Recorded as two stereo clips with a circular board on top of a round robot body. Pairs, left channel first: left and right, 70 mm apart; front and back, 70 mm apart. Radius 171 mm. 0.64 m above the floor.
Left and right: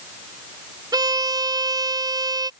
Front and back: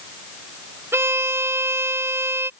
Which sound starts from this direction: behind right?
A violin, at 0.9 s.